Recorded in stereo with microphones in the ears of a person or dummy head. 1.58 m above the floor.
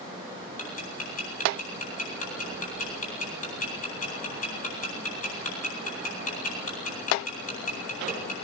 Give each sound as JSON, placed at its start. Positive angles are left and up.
{"t": 0.6, "sound": "ticking", "side_deg": 40, "distance_m": 9.5}